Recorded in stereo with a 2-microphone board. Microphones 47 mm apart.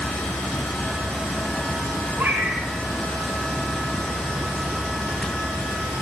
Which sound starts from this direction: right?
A cat meowing, at 2.2 s.